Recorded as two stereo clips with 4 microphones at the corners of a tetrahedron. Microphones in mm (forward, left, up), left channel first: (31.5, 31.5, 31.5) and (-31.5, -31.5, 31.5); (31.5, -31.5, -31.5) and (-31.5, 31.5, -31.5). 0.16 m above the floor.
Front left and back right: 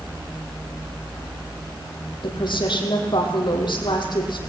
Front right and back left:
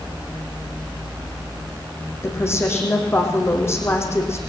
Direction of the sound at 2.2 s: 15° left.